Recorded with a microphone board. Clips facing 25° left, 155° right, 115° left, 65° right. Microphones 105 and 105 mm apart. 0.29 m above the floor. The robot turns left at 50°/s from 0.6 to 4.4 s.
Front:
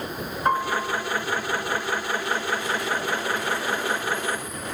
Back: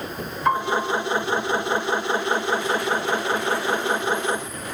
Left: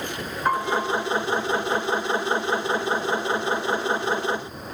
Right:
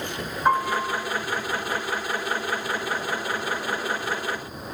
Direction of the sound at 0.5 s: 5° left.